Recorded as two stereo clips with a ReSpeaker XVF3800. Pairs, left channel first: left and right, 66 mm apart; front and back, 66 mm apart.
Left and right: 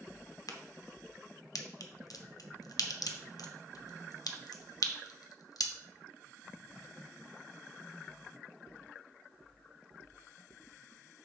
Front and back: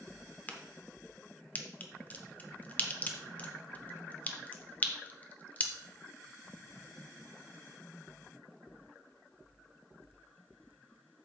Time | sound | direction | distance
0.5 | a crack | 65° left | 0.9 m